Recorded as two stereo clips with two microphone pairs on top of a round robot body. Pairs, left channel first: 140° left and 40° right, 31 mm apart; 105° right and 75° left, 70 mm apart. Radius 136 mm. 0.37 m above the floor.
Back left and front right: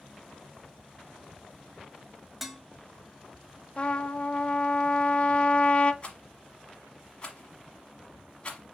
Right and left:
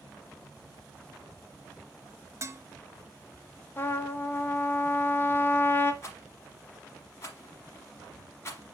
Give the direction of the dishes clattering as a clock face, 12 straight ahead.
11 o'clock.